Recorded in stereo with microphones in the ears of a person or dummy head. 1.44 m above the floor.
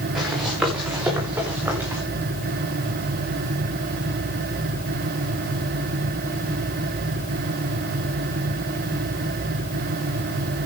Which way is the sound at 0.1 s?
Centre (ahead or behind).